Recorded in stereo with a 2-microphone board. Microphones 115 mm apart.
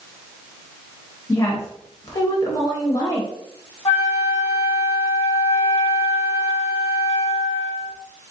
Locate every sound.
1.3 s a woman speaking: 30° left (ahead or behind), 1.0 m
3.9 s a flute: 50° left (ahead or behind), 1.7 m